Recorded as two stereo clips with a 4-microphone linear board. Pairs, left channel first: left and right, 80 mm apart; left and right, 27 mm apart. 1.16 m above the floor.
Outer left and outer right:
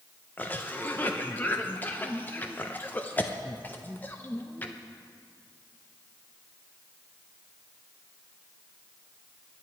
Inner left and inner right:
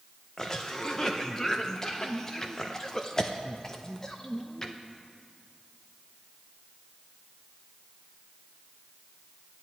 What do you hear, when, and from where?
0.4 s a cough: 20° left (ahead or behind), 0.6 m